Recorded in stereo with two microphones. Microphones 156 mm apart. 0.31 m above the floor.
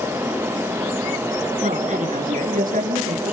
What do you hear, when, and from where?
1.6 s a woman speaking: 55° right (ahead or behind), 4.5 m; by 3.3 s 70° right (ahead or behind), 5.5 m